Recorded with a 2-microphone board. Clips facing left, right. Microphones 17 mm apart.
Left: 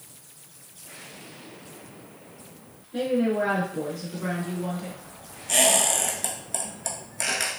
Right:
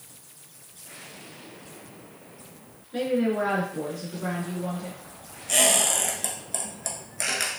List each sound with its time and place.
2.9 s a woman speaking: 40° right (ahead or behind), 1.6 m; by 5.0 s 35° left (ahead or behind), 1.6 m
5.5 s a squeak: 5° left (ahead or behind), 0.8 m